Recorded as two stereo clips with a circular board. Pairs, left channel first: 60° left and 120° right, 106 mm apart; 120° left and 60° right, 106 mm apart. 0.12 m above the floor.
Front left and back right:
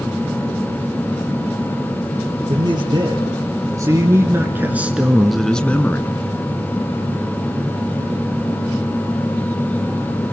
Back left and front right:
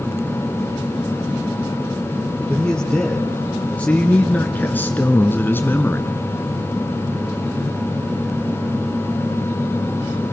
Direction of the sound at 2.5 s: 160° right.